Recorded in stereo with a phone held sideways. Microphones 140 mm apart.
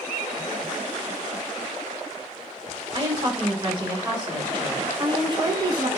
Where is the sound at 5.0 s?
35° right (ahead or behind), 0.7 m.